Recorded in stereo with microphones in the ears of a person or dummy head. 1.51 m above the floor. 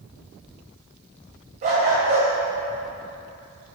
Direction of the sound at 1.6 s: 35° right (ahead or behind).